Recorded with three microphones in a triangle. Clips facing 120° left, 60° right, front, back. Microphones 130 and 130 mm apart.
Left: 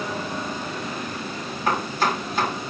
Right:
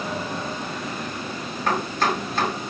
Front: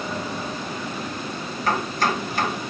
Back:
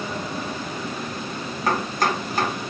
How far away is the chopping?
About 1.7 m.